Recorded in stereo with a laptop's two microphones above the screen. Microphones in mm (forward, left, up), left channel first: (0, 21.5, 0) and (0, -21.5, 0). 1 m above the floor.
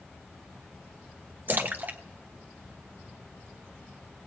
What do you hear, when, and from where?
1.5 s a splash: 45° right (ahead or behind), 1.5 m